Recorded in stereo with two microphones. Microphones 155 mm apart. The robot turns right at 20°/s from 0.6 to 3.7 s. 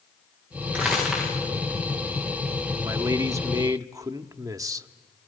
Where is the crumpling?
10° right (ahead or behind), 9.5 m; by 1.4 s centre (ahead or behind), 9.5 m.